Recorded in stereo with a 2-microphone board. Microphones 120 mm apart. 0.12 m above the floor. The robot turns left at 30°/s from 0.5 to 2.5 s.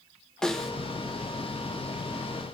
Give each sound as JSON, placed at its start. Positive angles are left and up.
{"t": 0.4, "sound": "a snare drum", "side_deg": 5, "distance_m": 0.6}